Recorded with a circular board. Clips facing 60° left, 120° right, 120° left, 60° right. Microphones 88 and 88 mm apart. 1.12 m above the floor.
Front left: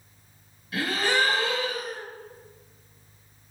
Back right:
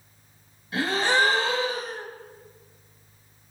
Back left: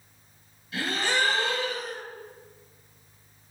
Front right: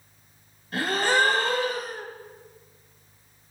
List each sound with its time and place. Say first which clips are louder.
0.7 s a gasp: back right 2 dB, front right 5 dB; 75° right, 1.2 m